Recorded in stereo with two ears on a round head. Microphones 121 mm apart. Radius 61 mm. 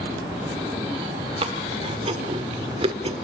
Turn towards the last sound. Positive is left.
turn(degrees=-40)  # may be behind; listen again after turning